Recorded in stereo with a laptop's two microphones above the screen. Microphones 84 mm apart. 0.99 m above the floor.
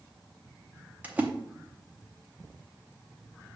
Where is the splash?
20° right (ahead or behind), 0.6 m.